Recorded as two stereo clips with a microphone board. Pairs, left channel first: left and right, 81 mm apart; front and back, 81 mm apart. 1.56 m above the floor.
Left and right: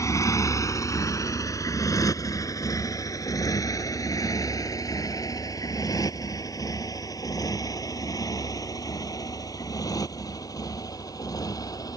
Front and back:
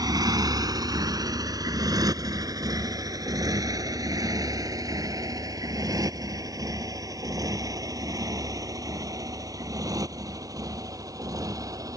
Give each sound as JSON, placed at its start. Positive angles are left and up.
{"t": 0.0, "sound": "a motorcycle", "azimuth_deg": 140}